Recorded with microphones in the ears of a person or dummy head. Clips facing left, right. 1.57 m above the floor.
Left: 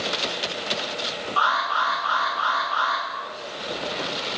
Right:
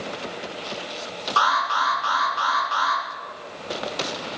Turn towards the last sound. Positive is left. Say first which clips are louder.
# right 3 dB
turn(degrees=-70)  # may be behind; listen again after turning